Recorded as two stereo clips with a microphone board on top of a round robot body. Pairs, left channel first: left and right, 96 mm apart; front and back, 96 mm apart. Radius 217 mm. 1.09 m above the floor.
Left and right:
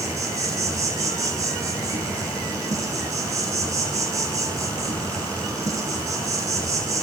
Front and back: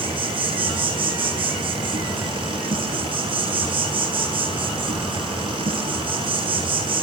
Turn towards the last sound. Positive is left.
turn(degrees=-150)